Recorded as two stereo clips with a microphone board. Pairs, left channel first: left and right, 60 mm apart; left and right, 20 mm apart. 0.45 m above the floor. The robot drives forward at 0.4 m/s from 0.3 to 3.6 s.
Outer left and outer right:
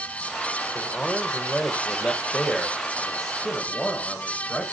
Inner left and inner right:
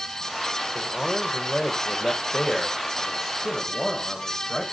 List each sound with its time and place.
0.8 s a man speaking: 15° left (ahead or behind), 1.8 m; by 4.6 s 10° left (ahead or behind), 3 m